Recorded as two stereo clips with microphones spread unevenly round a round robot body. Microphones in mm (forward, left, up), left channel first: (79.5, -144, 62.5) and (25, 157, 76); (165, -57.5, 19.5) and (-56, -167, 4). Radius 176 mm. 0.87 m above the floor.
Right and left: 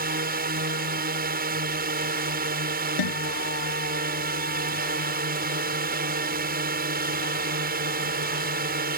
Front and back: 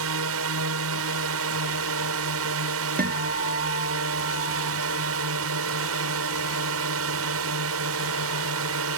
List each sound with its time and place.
0.0 s a drone: 165° left
3.0 s a guitar: 100° right